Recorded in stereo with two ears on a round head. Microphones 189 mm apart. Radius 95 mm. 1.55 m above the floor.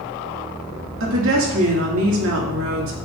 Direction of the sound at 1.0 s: 70° right (ahead or behind).